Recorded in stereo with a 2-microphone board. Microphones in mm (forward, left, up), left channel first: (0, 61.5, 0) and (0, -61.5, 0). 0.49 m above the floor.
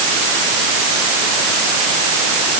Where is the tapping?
No tapping in this recording.